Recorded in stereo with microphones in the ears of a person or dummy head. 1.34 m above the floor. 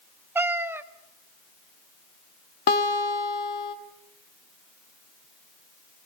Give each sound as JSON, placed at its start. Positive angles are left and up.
{"t": 0.3, "sound": "a cat meowing", "side_deg": -15, "distance_m": 0.7}
{"t": 2.7, "sound": "a guitar", "side_deg": 50, "distance_m": 1.4}